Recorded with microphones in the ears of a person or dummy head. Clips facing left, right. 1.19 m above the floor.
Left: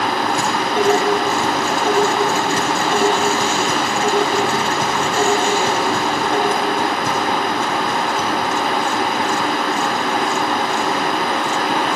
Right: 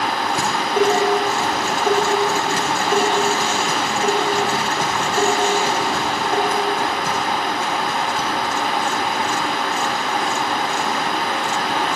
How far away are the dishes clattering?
About 3.5 m.